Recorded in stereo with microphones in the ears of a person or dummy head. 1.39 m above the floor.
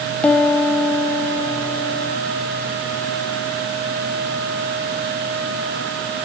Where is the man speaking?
I don't hear a man speaking.